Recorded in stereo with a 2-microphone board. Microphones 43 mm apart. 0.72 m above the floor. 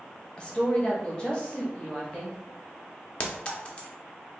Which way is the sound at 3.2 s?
25° left (ahead or behind).